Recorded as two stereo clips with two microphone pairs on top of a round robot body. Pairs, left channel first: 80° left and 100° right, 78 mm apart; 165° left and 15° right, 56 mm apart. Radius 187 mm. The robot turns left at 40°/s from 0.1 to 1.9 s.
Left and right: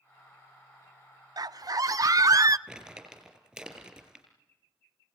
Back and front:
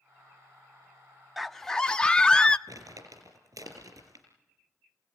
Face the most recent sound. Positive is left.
turn(degrees=-20)